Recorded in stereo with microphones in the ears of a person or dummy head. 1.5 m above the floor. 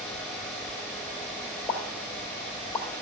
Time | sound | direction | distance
1.7 | a pop | 10° left (ahead or behind) | 1.3 m